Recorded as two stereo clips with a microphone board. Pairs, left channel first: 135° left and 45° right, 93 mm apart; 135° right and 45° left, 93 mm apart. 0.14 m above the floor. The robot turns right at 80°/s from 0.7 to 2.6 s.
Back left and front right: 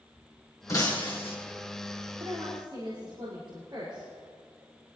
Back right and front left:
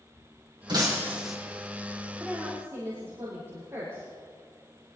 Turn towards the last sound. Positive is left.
turn(degrees=-15)